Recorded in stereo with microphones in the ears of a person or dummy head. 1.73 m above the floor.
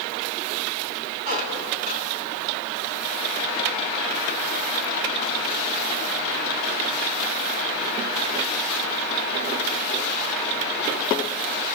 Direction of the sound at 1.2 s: 50° right (ahead or behind).